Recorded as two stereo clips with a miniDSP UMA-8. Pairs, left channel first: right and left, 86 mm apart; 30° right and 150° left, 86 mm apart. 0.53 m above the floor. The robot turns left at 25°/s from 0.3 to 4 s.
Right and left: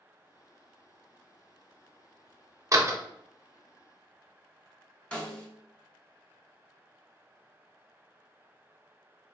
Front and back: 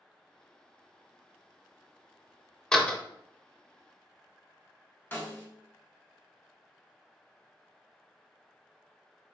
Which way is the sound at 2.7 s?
50° left.